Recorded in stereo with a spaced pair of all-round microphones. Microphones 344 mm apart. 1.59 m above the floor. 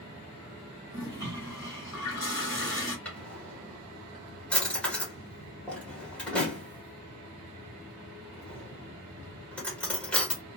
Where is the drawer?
5° left (ahead or behind), 1.3 m.